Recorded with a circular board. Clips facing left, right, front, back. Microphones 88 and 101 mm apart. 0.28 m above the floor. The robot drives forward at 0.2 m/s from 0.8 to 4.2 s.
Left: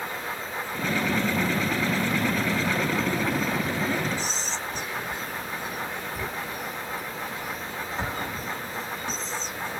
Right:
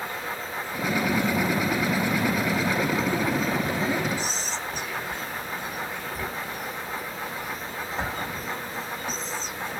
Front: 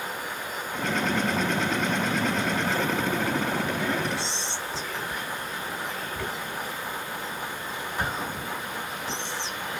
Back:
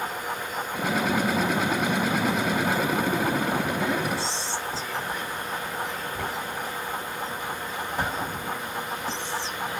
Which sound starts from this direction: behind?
Whispering, at 4.2 s.